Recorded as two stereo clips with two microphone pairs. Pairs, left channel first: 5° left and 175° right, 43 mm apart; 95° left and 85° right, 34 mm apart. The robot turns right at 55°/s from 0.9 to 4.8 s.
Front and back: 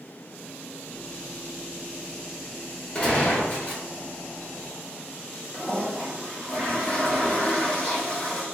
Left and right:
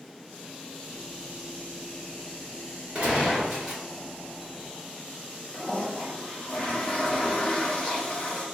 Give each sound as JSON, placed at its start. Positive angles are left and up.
{"t": 3.0, "sound": "a gunshot", "azimuth_deg": -50, "distance_m": 1.3}
{"t": 5.5, "sound": "a toilet flushing", "azimuth_deg": 60, "distance_m": 0.7}